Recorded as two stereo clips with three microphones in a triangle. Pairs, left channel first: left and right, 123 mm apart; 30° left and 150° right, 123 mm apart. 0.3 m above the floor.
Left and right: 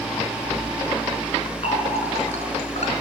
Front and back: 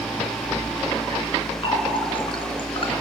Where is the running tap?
70° left, 2.5 m.